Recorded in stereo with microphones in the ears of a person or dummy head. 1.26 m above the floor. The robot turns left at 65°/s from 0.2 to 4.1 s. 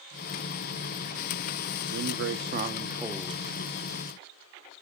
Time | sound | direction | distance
1.9 | a man speaking | 95° right | 1.1 m